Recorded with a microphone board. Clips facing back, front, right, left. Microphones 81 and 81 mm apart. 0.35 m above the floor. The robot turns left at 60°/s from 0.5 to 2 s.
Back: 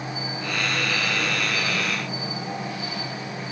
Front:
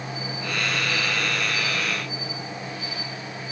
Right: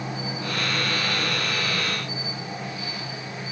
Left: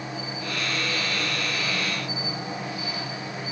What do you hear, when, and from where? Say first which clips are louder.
0.0 s an insect: back 1 dB, right 2 dB; 110° right, 4 m; by 3.5 s 160° left, 4 m